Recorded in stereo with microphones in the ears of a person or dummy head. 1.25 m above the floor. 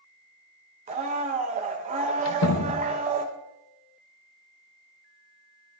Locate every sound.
0.9 s a blender: 30° right (ahead or behind), 0.9 m
2.2 s a door slam: 70° left (ahead or behind), 0.9 m